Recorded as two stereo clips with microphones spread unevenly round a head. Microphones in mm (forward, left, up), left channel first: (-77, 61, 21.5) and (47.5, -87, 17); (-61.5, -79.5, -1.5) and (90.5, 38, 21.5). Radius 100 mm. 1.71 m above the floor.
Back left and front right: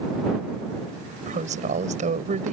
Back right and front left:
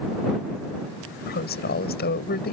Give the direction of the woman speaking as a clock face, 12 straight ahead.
3 o'clock.